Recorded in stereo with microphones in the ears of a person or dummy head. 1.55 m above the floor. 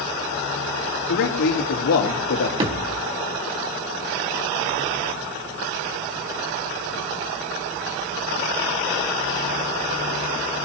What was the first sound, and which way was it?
A man speaking, 65° left (ahead or behind).